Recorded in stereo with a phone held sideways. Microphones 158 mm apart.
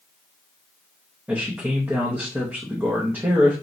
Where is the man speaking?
15° right (ahead or behind), 0.7 m.